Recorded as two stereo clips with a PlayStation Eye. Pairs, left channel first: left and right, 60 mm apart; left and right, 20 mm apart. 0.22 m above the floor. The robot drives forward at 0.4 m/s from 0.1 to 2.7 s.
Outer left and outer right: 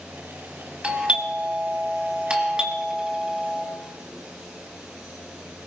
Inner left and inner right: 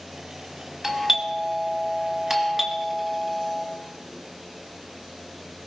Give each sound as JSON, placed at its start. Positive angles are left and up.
{"t": 0.8, "sound": "a doorbell", "side_deg": -20, "distance_m": 1.9}